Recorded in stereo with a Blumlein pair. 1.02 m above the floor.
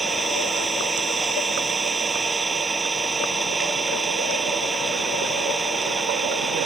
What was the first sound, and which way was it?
An engine running, 10° right.